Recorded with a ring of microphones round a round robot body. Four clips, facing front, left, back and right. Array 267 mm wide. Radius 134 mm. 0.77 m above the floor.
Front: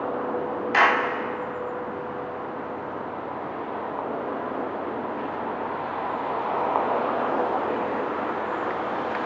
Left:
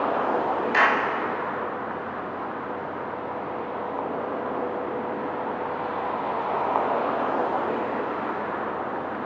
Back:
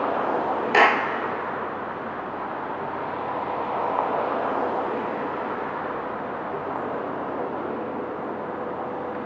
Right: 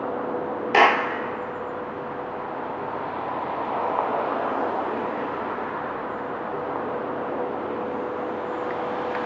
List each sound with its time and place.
0.7 s a clap: 130° right, 1.4 m